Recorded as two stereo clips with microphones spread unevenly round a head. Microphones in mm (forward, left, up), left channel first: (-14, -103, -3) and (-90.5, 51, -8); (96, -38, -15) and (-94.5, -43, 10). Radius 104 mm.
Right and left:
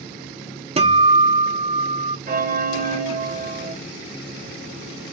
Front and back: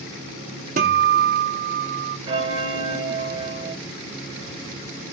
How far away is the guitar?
About 0.9 m.